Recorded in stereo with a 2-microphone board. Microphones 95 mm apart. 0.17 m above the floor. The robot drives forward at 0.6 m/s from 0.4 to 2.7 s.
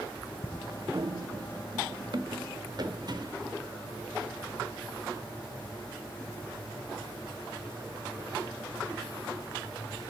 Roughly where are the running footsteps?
Right.